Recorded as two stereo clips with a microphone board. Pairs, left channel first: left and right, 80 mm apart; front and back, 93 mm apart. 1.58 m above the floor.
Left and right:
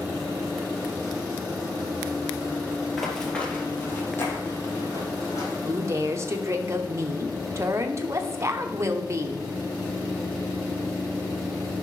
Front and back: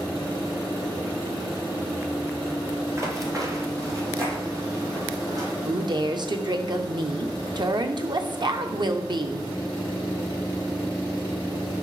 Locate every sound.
3.0 s running footsteps: 175° left, 1.8 m; by 5.5 s 135° left, 4 m
5.7 s a woman speaking: 140° right, 0.9 m